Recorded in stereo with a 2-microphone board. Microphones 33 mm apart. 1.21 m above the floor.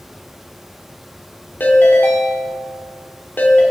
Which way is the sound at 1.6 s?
80° left.